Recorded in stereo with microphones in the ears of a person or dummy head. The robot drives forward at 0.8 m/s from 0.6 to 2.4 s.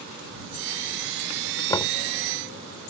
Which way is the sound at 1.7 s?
20° left (ahead or behind).